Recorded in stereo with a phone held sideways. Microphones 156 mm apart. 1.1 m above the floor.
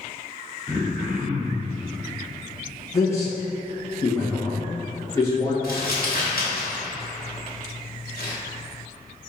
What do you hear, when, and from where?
0.7 s throat clearing: 5° right (ahead or behind), 0.7 m
2.9 s a man speaking: 20° left (ahead or behind), 1.2 m
5.6 s crumpling: 80° left, 1.2 m